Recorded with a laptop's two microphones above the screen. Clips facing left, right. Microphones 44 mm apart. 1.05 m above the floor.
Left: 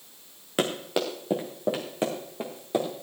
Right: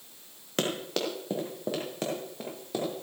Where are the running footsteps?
10° left (ahead or behind), 2.5 m; by 2.9 s 20° left (ahead or behind), 4.5 m.